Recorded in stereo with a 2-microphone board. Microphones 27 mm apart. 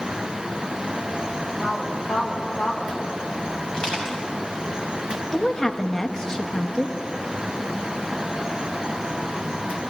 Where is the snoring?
No snoring in this recording.